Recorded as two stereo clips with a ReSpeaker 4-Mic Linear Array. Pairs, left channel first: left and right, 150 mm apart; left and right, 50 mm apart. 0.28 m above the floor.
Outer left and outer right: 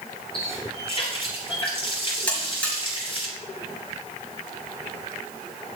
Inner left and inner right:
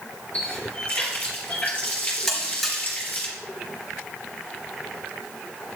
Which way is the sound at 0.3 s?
35° left (ahead or behind).